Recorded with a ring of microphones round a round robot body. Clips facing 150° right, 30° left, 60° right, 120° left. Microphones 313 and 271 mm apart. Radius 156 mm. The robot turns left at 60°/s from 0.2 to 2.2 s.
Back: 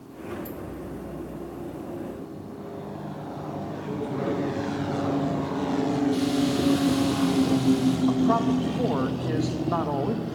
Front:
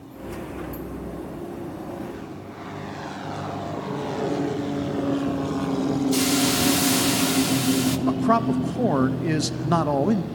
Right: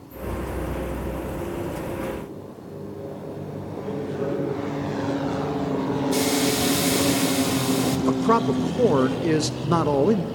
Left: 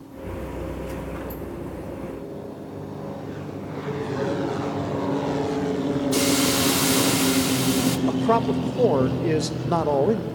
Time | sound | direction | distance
3.8 | a man speaking | 130° left | 8.5 m
6.1 | a hiss | 45° left | 1.3 m
8.1 | a man speaking | 10° left | 1.0 m